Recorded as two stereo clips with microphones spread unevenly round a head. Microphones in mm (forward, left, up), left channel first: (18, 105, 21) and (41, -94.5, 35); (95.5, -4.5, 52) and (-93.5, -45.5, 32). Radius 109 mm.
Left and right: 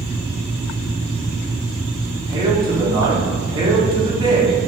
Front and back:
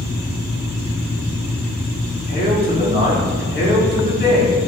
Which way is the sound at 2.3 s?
20° right.